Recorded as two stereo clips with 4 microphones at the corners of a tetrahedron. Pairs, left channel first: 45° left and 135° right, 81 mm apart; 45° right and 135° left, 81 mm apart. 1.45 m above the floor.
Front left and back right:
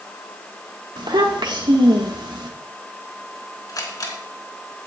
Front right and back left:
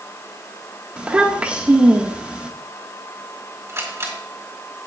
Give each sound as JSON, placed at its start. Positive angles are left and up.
{"t": 1.0, "sound": "a child speaking", "azimuth_deg": -150, "distance_m": 1.5}
{"t": 3.7, "sound": "a camera shutter", "azimuth_deg": 80, "distance_m": 4.0}